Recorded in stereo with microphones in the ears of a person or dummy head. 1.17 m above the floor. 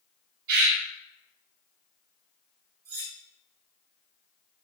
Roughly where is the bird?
Right.